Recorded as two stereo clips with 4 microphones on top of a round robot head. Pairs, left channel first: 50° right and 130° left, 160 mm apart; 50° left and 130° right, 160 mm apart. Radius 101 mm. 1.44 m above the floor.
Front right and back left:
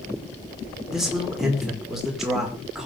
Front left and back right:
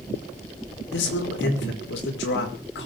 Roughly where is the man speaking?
Ahead left.